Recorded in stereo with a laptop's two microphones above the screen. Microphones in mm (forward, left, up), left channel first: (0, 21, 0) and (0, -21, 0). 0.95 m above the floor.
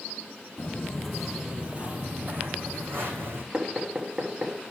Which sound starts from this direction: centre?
Knocking, at 3.5 s.